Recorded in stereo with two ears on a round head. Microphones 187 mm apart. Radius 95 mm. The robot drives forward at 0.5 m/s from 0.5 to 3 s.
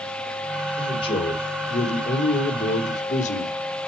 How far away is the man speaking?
About 2 m.